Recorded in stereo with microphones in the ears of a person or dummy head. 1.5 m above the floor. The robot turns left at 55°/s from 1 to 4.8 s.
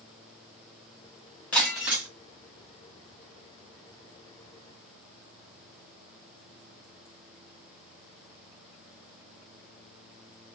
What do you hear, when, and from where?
1.5 s breaking glass: 10° left, 1.1 m; by 2.1 s 20° right, 1.1 m